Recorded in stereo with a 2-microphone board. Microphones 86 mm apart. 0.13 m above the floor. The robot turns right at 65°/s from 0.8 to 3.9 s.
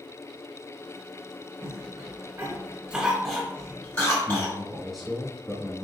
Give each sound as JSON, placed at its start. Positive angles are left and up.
{"t": 1.6, "sound": "a cough", "side_deg": -30, "distance_m": 1.5}
{"t": 4.3, "sound": "a man speaking", "side_deg": 0, "distance_m": 1.1}